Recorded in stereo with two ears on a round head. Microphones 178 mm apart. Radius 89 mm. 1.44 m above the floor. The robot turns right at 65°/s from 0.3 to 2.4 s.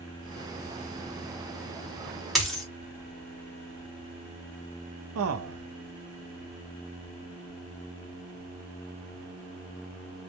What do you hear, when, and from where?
2.4 s a dropped coin: centre (ahead or behind), 1.0 m
5.2 s a man speaking: 80° right, 0.6 m